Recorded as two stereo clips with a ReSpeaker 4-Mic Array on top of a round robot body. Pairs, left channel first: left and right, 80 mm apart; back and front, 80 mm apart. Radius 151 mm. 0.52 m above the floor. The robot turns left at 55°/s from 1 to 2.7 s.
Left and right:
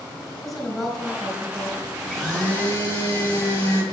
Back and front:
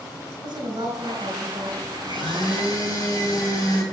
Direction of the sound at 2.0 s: 170° right.